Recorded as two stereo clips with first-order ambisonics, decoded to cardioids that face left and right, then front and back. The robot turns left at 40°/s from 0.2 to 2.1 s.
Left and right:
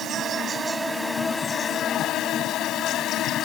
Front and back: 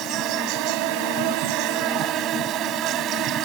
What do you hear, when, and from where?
0.0 s an insect: 145° right; by 3.5 s 140° left